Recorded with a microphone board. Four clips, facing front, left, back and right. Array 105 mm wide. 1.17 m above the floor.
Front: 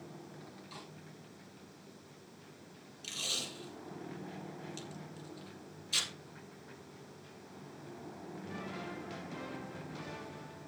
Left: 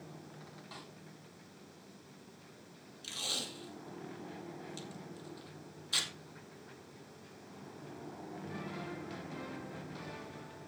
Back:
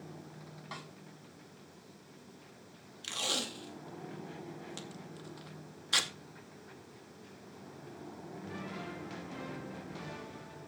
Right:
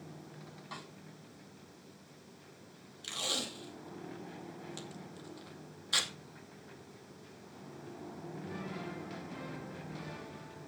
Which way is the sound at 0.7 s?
165° right.